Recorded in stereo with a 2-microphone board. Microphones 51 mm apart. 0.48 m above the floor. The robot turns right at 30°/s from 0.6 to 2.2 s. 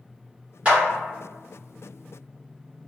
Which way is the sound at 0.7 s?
25° right (ahead or behind).